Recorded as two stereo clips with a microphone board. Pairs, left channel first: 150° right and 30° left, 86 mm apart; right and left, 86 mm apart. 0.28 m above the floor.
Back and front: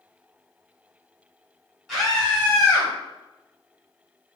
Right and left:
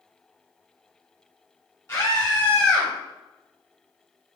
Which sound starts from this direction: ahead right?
A scream, at 1.9 s.